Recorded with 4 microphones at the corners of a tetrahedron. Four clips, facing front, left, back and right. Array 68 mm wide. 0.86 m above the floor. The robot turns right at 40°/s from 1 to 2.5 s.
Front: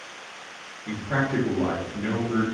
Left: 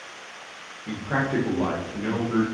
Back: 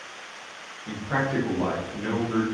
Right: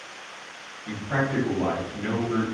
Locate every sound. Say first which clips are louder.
0.9 s a man speaking: left 1 dB, front 1 dB; 95° left, 1.0 m; by 2.4 s 155° left, 1.0 m